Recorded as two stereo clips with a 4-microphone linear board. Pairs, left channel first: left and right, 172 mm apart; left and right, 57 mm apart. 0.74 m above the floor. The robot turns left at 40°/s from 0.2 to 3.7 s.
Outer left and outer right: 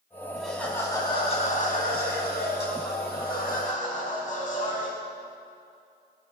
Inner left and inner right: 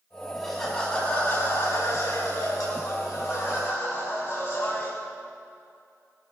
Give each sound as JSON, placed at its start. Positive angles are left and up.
{"t": 0.4, "sound": "laughter", "azimuth_deg": 180, "distance_m": 5.5}